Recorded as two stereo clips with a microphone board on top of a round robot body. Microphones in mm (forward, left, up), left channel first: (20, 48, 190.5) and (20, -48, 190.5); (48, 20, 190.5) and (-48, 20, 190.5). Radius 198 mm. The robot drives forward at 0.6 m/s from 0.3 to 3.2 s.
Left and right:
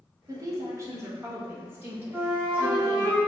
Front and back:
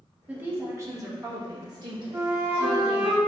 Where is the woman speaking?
115° right, 1.2 m; by 3.1 s 160° right, 2.5 m.